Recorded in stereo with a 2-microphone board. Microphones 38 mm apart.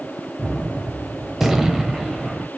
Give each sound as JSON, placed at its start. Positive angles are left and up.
{"t": 0.4, "sound": "a gunshot", "side_deg": -10, "distance_m": 0.8}